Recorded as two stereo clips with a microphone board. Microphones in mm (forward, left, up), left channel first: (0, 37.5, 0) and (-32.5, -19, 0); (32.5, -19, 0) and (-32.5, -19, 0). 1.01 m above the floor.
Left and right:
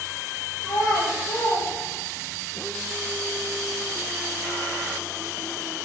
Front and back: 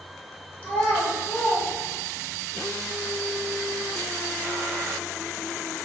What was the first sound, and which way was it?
A child speaking, 70° left.